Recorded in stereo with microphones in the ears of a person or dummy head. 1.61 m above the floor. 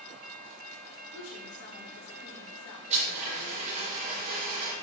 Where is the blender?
45° right (ahead or behind), 5.5 m.